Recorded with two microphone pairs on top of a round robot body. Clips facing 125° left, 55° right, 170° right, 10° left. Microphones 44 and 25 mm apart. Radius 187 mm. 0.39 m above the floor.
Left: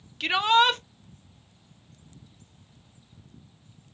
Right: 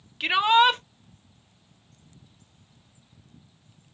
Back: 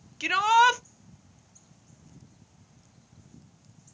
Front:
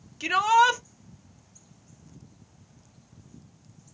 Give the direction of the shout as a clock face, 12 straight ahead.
4 o'clock.